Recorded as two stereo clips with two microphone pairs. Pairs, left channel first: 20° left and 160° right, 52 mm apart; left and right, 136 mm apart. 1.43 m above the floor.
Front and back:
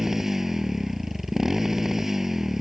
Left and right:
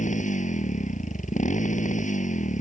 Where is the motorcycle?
115° left.